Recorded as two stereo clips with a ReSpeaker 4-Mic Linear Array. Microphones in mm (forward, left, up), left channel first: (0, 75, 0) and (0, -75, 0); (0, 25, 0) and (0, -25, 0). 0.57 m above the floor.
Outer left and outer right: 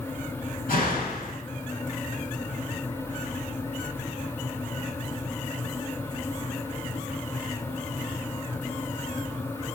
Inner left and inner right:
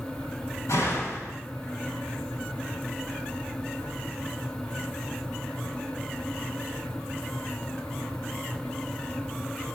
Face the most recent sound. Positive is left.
turn(degrees=70)  # may be behind; listen again after turning